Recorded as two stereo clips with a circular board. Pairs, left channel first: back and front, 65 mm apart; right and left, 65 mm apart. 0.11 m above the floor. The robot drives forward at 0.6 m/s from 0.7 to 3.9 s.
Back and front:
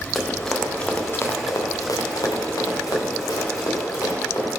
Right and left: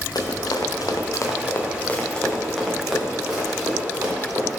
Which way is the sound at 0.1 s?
90° right.